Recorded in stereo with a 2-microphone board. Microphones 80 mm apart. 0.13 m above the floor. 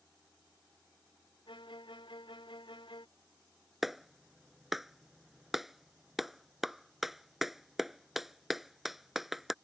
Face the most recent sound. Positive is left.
turn(degrees=0)  # may be behind; listen again after turning